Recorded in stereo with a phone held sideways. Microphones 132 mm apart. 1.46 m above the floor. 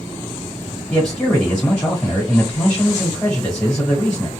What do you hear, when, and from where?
0.9 s a man speaking: 20° left (ahead or behind), 1.3 m